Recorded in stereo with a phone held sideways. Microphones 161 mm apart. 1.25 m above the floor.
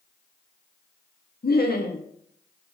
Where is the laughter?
75° left (ahead or behind), 0.7 m.